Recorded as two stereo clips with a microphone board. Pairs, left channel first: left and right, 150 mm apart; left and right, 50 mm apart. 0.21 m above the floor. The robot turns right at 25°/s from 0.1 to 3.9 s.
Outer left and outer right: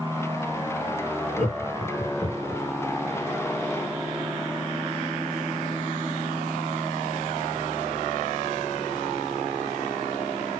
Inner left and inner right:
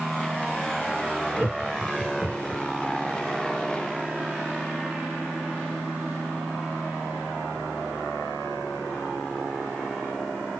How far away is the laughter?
About 1.4 m.